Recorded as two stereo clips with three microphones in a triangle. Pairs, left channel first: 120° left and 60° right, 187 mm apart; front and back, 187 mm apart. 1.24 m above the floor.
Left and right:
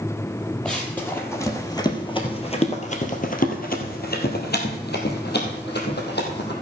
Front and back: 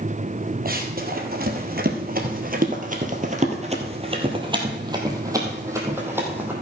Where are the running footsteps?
155° right, 2.5 m; by 6.5 s 100° left, 3.5 m.